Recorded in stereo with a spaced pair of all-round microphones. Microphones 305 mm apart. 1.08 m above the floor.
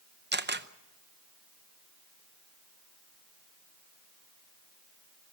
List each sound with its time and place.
0.3 s a camera shutter: 35° right (ahead or behind), 0.7 m